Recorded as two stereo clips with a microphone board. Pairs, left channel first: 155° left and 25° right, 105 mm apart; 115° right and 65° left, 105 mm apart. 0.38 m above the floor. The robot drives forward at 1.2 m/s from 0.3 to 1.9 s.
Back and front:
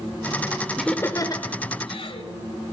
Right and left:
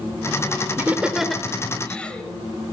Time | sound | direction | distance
0.8 | laughter | 60° left | 0.8 m